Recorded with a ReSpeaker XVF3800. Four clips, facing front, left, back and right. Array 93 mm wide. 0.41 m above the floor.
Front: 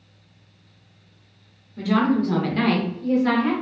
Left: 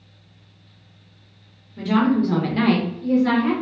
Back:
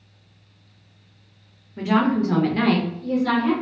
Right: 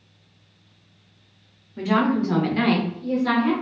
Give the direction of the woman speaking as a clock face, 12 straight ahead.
5 o'clock.